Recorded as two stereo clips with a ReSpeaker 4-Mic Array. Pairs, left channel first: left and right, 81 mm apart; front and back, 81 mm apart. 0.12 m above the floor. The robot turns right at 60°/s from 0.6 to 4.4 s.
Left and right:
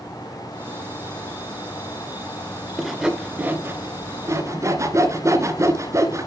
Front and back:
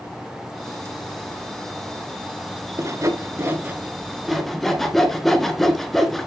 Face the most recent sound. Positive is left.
turn(degrees=-85)